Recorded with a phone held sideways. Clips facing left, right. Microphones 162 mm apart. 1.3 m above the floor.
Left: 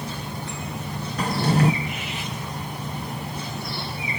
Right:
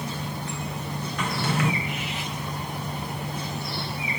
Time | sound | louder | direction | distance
1.2 | a drawer | left 6 dB | 35° left (ahead or behind) | 0.6 m